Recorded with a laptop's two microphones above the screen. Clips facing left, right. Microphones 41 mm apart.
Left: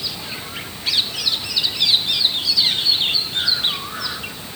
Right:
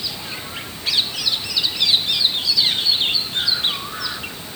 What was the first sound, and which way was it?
Only background noise.